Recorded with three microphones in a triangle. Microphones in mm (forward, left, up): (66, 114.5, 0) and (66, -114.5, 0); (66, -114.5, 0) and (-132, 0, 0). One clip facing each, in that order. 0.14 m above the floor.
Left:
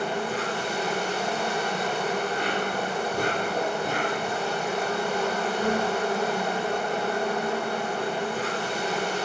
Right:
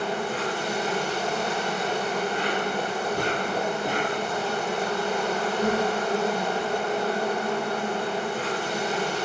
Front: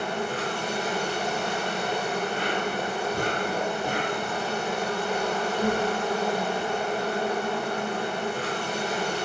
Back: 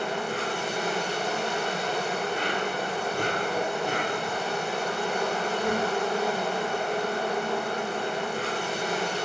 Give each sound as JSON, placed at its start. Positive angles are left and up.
{"t": 0.0, "sound": "an insect", "azimuth_deg": -5, "distance_m": 1.9}